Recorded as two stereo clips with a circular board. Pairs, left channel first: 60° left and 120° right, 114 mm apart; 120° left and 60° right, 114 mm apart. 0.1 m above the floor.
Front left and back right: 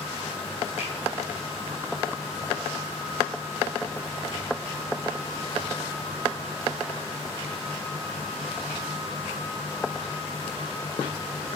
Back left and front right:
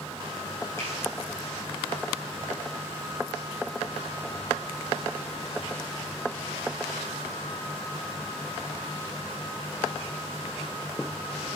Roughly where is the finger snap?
Ahead left.